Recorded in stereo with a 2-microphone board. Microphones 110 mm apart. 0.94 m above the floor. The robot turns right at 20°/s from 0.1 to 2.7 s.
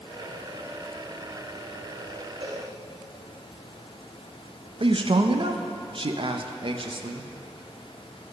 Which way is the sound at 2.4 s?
70° right (ahead or behind).